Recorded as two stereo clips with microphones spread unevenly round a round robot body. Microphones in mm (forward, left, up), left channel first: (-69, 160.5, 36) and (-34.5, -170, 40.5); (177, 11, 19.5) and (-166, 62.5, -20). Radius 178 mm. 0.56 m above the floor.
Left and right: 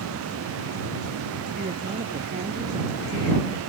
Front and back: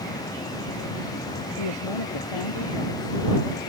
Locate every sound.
1.6 s a woman speaking: 10° right